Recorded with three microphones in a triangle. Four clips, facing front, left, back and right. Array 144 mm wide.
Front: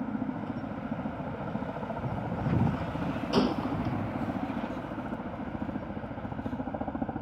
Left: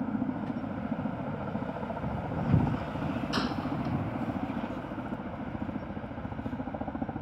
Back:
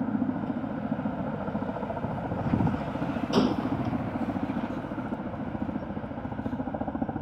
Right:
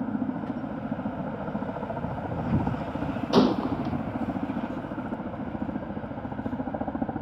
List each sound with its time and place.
0.0 s a helicopter: 140° right; by 7.2 s 105° right
3.3 s a gunshot: 90° right